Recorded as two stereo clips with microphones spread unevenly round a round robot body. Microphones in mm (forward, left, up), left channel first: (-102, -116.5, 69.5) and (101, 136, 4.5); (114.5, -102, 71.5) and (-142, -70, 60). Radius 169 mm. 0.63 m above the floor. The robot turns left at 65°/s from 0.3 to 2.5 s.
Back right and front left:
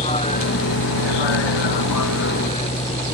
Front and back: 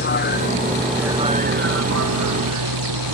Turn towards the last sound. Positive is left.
turn(degrees=160)